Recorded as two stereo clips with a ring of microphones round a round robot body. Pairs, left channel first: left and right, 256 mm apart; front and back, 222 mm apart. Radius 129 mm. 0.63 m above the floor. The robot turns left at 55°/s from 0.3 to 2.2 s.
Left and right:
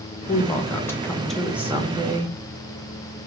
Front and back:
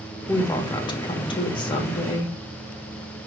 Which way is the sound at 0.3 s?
55° left.